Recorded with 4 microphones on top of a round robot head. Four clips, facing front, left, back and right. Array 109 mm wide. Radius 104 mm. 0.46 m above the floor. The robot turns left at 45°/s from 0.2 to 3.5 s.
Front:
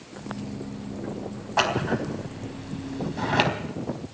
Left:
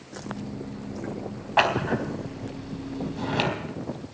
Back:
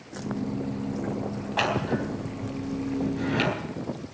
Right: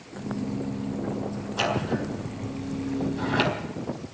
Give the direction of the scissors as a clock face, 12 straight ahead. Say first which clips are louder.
Left 4 dB, front 2 dB; 10 o'clock.